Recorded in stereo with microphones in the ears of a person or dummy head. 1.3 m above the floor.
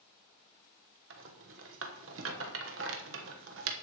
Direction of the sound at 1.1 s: 70° right (ahead or behind).